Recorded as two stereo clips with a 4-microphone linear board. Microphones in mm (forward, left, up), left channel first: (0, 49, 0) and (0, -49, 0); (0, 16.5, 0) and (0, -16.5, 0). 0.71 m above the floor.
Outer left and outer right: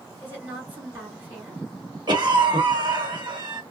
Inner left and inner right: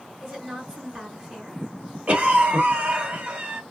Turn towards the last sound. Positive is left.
turn(degrees=-50)  # may be behind; listen again after turning